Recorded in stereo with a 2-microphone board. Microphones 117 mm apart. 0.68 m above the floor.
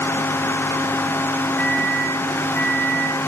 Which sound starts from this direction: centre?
A microwave, at 1.6 s.